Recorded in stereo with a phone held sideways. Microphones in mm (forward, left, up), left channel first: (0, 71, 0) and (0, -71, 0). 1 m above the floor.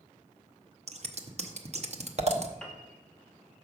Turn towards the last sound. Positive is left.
turn(degrees=5)  # may be behind; listen again after turning